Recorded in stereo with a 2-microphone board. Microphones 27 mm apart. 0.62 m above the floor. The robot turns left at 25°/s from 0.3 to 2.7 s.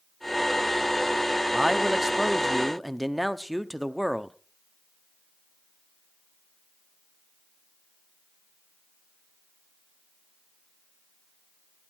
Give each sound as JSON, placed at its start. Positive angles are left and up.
{"t": 1.5, "sound": "a man speaking", "side_deg": -20, "distance_m": 0.8}